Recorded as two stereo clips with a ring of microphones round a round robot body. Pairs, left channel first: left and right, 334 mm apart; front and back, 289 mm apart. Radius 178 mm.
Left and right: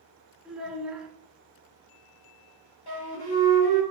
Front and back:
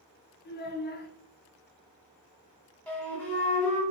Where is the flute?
85° left, 1.7 m.